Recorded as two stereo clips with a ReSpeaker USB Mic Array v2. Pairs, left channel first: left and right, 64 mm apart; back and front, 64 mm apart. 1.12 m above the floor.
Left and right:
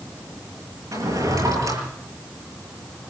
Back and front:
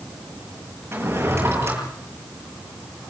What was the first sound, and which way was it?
A drawer, 55° right.